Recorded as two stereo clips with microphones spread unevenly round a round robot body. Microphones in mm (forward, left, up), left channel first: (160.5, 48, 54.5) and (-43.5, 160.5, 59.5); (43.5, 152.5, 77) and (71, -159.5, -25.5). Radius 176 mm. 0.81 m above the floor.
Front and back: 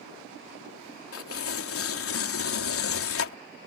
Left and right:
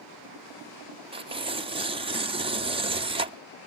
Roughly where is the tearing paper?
Ahead.